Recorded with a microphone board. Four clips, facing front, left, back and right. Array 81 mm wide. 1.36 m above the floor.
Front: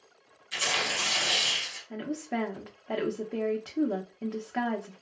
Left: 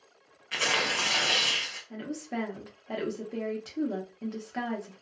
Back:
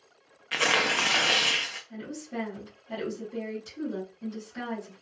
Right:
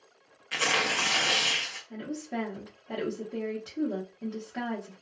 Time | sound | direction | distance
0.5 | tearing paper | straight behind | 0.6 m
1.9 | a woman speaking | 10° left | 0.8 m